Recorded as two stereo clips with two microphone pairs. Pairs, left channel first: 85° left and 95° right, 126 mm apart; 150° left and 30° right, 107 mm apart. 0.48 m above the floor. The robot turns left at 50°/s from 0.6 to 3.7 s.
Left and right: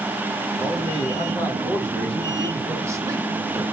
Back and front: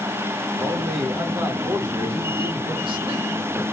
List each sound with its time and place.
0.6 s a man speaking: 80° left, 1.7 m; by 3.6 s 70° right, 1.7 m